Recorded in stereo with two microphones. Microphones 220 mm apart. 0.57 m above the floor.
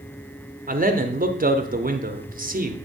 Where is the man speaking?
35° right (ahead or behind), 0.9 m.